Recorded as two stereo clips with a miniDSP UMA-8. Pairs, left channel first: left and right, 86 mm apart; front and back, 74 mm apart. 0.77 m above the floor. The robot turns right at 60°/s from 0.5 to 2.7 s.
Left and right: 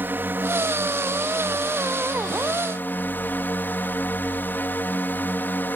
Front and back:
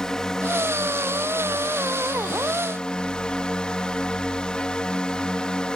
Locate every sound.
0.0 s a drone: 70° right; by 5.8 s 65° left